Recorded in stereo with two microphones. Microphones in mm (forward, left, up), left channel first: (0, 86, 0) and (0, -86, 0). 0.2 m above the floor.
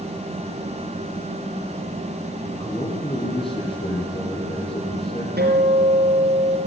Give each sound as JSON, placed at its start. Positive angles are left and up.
{"t": 2.4, "sound": "a man speaking", "side_deg": 30, "distance_m": 6.0}
{"t": 5.4, "sound": "a guitar", "side_deg": -65, "distance_m": 4.5}